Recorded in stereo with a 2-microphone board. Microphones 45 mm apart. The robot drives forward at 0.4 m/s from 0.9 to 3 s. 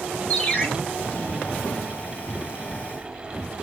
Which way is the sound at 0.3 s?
30° left (ahead or behind).